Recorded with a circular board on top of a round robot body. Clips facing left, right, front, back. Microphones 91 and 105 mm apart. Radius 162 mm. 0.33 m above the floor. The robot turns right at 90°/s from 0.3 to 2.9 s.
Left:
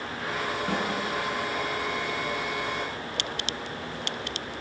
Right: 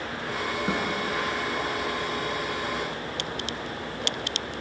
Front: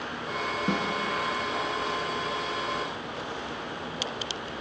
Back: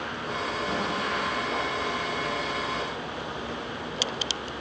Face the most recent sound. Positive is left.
turn(degrees=180)